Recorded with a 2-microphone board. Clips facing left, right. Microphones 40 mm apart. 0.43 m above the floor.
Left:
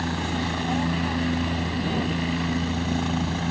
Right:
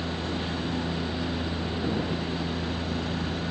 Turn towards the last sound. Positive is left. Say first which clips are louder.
# left 4 dB
turn(degrees=60)  # may be behind; listen again after turning